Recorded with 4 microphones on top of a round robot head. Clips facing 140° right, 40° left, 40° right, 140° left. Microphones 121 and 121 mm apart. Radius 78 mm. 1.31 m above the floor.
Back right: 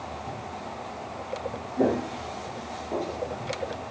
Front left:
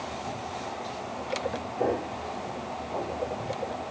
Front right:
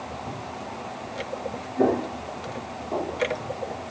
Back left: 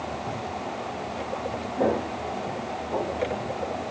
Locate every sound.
1.8 s footsteps: 115° right, 2.5 m; by 3.8 s 120° right, 4 m